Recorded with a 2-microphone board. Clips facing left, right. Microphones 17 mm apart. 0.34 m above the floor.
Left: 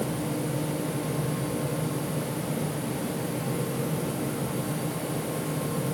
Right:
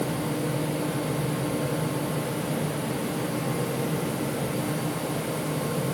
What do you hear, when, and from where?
Only background noise.